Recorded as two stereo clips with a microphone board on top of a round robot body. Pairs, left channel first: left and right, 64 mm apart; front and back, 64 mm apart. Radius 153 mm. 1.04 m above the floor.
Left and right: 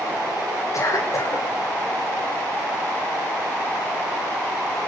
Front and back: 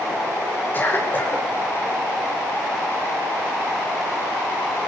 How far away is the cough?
About 6.5 m.